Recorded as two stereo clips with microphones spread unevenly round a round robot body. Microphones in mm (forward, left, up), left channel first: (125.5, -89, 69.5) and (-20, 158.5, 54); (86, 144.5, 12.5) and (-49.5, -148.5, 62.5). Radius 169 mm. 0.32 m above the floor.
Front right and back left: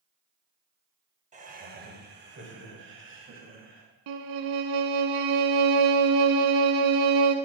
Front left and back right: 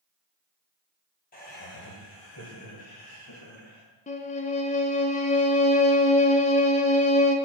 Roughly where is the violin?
Behind left.